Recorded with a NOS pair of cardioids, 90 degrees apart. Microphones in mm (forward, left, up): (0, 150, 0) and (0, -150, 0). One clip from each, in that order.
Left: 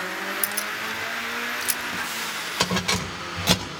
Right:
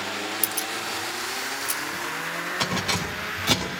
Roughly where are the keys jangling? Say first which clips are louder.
Left 1 dB; ahead.